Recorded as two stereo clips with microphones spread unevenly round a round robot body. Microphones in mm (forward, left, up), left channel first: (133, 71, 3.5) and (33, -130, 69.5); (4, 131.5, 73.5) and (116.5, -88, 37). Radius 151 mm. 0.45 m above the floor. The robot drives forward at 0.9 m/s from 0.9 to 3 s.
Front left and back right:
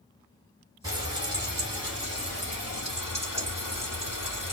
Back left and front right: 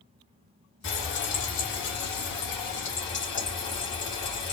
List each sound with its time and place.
0.8 s frying: 160° left, 1.7 m; by 4.5 s 170° left, 3.5 m